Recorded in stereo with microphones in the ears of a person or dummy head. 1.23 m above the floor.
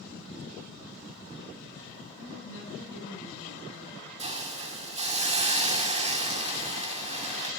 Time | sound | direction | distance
2.1 | a woman speaking | 70° left (ahead or behind) | 8.5 m
4.2 | a hiss | 35° right (ahead or behind) | 2 m